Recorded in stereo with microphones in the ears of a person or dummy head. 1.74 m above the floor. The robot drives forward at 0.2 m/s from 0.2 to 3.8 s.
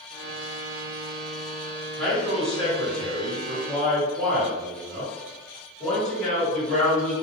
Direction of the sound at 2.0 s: 10° left (ahead or behind).